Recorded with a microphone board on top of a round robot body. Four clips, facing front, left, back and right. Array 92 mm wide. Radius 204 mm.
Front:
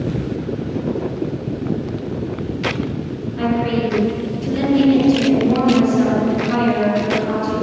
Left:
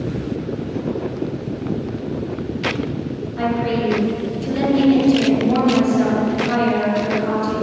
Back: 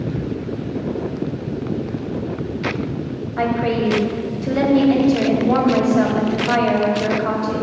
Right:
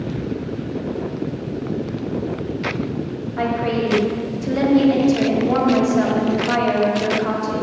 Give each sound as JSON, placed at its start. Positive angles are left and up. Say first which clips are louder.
{"t": 3.4, "sound": "a woman speaking", "louder": "even, even", "azimuth_deg": -160, "distance_m": 1.9}